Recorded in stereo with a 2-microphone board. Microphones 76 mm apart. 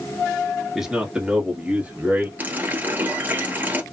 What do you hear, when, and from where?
0.8 s a man speaking: 5° right (ahead or behind), 1.4 m; by 2.3 s 20° right (ahead or behind), 1.8 m
2.4 s a running tap: 25° right (ahead or behind), 1.1 m